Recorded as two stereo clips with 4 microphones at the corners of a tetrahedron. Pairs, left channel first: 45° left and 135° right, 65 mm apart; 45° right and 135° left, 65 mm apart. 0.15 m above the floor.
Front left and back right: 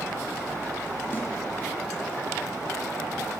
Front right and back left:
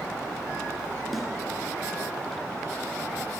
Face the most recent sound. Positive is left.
turn(degrees=45)